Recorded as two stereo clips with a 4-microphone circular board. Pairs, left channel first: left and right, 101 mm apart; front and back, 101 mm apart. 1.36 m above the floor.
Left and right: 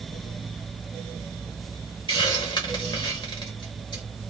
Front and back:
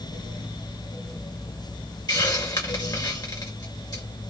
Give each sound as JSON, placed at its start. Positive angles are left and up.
{"t": 2.1, "sound": "a hiss", "azimuth_deg": 50, "distance_m": 2.5}